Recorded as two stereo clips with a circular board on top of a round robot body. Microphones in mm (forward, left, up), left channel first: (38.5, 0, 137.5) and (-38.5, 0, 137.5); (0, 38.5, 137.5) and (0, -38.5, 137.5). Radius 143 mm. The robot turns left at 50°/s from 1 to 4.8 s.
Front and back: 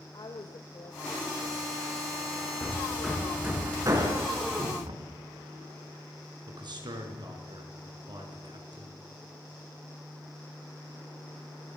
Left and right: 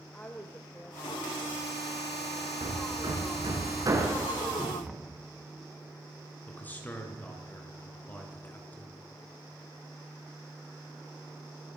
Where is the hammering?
70° right, 5 m; by 4.8 s straight behind, 5 m.